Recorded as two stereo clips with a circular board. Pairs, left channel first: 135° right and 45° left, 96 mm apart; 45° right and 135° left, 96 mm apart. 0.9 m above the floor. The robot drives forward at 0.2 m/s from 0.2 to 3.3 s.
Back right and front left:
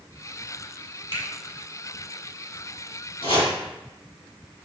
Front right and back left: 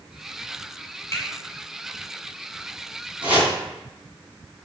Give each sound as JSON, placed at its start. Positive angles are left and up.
{"t": 1.1, "sound": "a finger snap", "azimuth_deg": -105, "distance_m": 2.5}
{"t": 3.2, "sound": "chopping", "azimuth_deg": -150, "distance_m": 3.0}